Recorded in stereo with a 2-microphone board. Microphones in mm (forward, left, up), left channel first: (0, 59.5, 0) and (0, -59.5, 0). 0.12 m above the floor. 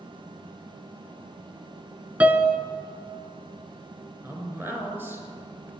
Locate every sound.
2.2 s a piano: 15° right (ahead or behind), 0.6 m
4.2 s a man speaking: 20° right (ahead or behind), 2 m